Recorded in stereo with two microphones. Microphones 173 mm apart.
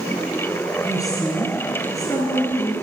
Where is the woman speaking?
20° left (ahead or behind), 2 m.